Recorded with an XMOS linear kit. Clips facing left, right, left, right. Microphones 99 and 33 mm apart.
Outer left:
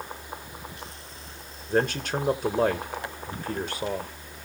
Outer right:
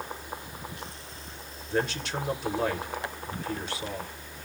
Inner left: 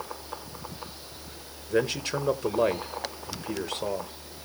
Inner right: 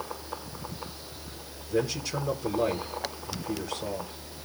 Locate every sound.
1.7 s a man speaking: 45° left (ahead or behind), 1.3 m